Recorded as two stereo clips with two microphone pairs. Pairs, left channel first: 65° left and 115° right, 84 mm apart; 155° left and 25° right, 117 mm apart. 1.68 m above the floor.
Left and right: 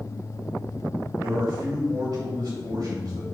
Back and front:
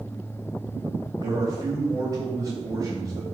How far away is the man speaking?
About 3 m.